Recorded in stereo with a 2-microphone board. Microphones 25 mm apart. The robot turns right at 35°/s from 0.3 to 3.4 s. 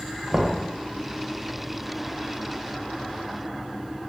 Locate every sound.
0.3 s knocking: 30° right (ahead or behind), 0.6 m; by 0.6 s 35° right (ahead or behind), 0.6 m